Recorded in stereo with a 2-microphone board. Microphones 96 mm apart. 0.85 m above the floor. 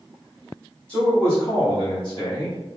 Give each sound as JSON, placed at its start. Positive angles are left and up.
{"t": 0.9, "sound": "a man speaking", "side_deg": 15, "distance_m": 1.3}